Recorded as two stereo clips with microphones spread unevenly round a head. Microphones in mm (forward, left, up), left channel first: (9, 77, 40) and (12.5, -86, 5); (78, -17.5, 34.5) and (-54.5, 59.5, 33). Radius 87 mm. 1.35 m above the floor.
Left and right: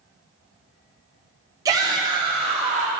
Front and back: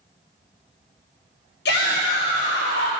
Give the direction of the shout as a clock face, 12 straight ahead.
1 o'clock.